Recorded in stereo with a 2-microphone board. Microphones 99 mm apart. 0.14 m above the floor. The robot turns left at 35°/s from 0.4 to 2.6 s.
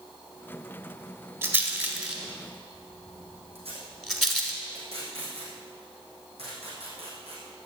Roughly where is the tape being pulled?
Right.